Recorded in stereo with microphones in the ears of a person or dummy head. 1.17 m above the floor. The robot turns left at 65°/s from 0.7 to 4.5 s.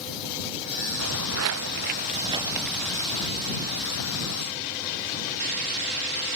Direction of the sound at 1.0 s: 75° right (ahead or behind).